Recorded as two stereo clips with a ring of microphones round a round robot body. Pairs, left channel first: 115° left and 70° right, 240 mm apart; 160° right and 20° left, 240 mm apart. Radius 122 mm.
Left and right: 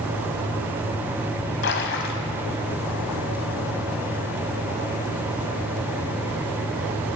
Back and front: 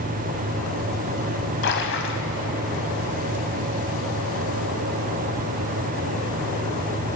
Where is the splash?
160° left, 1.6 m.